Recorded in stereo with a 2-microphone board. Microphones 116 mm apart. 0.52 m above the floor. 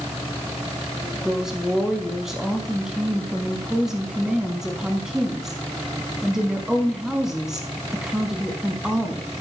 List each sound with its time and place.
1.2 s a woman speaking: 5° right (ahead or behind), 4 m